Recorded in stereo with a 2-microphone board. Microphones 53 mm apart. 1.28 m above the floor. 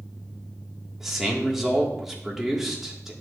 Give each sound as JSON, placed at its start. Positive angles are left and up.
{"t": 1.0, "sound": "a man speaking", "side_deg": -5, "distance_m": 1.8}